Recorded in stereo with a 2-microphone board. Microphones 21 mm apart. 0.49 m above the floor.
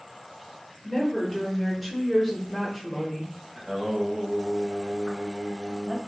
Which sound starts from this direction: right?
Singing, at 3.5 s.